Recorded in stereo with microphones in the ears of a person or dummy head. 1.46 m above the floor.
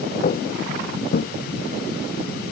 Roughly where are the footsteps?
Left.